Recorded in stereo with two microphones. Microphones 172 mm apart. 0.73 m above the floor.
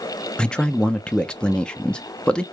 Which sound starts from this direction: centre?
A man speaking, at 0.4 s.